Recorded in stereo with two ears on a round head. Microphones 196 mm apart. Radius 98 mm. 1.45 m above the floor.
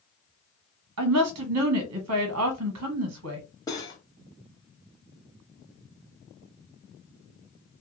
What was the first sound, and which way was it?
A woman speaking, 80° right.